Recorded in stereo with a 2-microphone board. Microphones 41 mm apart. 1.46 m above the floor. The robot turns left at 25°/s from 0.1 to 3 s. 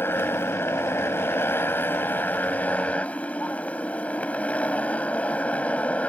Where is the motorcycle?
110° left; by 6.1 s 35° left.